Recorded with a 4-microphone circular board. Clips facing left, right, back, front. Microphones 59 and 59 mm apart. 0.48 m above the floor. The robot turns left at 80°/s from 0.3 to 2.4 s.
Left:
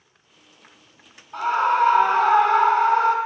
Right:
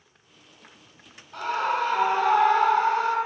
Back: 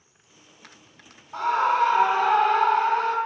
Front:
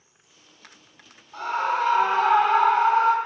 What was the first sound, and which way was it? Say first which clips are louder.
A scream: left 6 dB, back 3 dB; 170° left.